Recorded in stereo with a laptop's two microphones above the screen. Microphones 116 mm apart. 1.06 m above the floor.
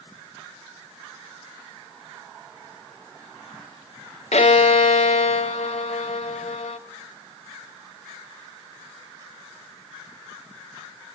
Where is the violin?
65° left (ahead or behind), 0.7 m.